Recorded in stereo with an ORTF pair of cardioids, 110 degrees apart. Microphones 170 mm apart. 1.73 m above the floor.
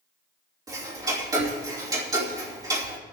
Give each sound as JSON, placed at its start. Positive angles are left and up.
{"t": 0.7, "sound": "ticking", "azimuth_deg": -20, "distance_m": 2.5}